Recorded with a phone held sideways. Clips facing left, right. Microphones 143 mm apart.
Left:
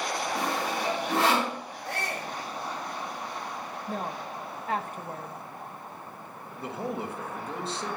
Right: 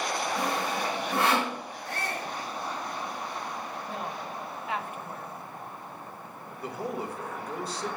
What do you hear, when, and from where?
0.3 s sawing: 85° left, 5.5 m
1.9 s a shout: 85° left, 3.5 m
3.9 s a woman speaking: 40° left (ahead or behind), 0.8 m
6.6 s a man speaking: 25° left (ahead or behind), 1.6 m